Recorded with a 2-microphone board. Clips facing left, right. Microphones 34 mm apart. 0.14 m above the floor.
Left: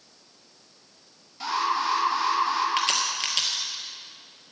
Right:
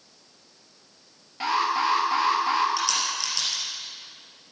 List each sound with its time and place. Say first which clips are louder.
1.4 s an alarm: right 2 dB; 40° right (ahead or behind), 2.5 m
2.8 s a crack: left 1 dB; 45° left (ahead or behind), 2.5 m